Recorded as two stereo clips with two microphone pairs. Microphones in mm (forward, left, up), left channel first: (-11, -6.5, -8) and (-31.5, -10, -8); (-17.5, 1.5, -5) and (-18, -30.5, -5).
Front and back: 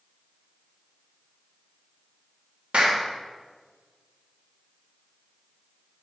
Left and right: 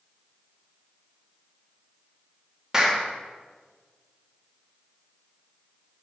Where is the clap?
160° right, 1.2 m.